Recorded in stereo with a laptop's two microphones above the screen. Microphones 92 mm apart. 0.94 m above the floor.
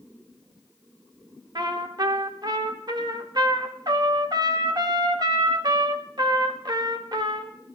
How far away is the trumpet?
About 0.8 m.